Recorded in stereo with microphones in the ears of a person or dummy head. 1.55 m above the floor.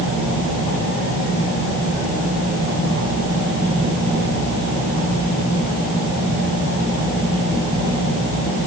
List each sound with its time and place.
Only background noise.